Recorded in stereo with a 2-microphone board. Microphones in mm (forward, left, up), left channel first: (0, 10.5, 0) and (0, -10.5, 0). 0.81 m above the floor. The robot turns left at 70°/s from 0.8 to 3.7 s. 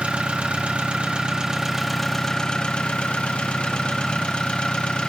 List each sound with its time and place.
0.0 s an engine running: 100° right, 0.8 m; by 5.1 s 55° left, 0.8 m